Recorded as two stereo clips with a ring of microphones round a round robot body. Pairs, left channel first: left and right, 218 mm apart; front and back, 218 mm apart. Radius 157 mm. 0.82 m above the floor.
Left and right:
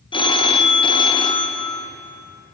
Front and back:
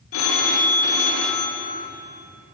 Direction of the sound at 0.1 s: 20° left.